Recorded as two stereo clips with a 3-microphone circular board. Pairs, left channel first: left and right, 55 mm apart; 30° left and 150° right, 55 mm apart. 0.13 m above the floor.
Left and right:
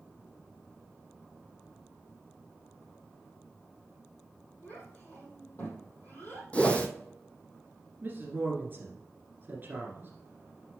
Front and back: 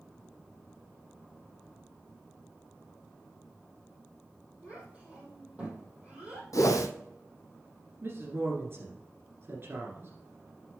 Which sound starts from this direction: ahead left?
A whoosh, at 6.5 s.